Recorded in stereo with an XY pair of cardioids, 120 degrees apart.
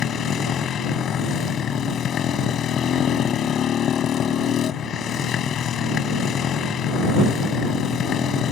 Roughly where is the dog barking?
No dog barking in this recording.